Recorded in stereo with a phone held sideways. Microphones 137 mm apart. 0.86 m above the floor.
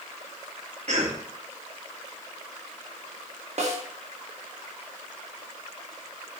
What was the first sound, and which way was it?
A cough, 55° right (ahead or behind).